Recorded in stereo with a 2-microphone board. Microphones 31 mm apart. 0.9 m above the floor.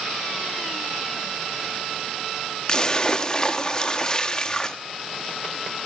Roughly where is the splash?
Left.